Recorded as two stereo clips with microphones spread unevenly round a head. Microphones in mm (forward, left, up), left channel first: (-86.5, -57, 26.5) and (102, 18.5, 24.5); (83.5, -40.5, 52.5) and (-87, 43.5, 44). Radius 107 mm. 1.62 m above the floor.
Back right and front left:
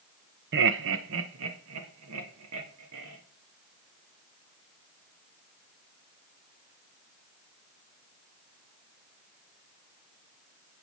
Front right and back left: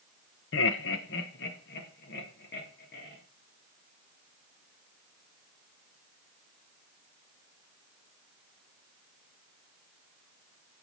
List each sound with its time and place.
0.5 s laughter: 5° right, 0.8 m; by 3.2 s 10° left, 3.5 m